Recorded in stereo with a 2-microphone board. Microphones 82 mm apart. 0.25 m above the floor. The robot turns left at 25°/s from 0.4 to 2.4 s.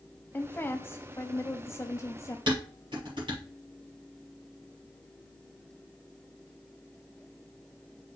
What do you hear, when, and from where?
0.3 s a woman speaking: 130° left, 1.0 m; by 2.4 s 85° left, 1.0 m
2.5 s dishes clattering: 70° right (ahead or behind), 4 m